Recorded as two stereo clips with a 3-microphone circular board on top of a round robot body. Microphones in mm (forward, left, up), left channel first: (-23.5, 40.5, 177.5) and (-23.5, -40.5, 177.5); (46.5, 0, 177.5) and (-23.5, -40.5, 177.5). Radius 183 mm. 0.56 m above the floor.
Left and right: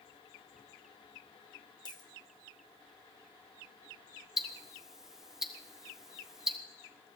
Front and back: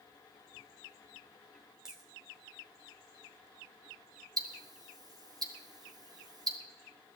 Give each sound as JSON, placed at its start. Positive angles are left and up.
{"t": 1.9, "sound": "a dropped coin", "azimuth_deg": 125, "distance_m": 1.6}
{"t": 4.4, "sound": "ticking", "azimuth_deg": -170, "distance_m": 1.6}